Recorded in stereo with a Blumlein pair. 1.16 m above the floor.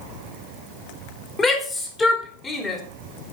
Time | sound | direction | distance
1.4 | a shout | 20° left | 3.5 m